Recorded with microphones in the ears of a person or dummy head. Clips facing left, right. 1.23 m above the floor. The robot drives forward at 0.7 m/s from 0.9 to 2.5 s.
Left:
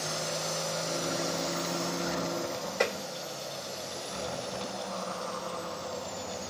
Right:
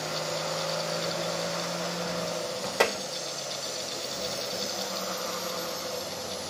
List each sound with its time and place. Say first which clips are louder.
2.8 s tapping: right 4 dB; 75° right (ahead or behind), 1.4 m